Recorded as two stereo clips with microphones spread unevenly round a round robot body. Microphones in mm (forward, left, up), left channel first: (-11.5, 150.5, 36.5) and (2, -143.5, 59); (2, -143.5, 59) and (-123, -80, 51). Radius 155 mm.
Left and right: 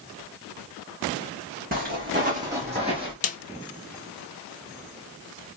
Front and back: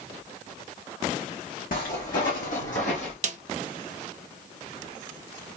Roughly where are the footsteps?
Ahead right.